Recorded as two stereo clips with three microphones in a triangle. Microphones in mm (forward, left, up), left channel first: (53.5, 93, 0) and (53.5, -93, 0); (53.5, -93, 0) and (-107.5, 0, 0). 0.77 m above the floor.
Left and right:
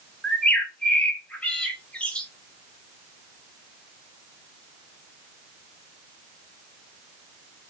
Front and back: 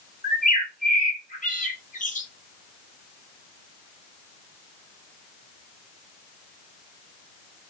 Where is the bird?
5° left, 0.6 m.